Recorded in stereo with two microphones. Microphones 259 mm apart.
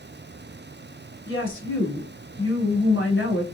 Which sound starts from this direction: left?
A woman speaking, at 1.3 s.